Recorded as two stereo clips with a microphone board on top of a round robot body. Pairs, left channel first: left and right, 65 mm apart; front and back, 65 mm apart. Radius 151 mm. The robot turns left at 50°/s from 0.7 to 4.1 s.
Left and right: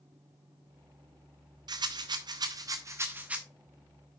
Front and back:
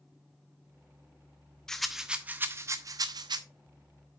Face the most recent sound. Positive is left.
turn(degrees=160)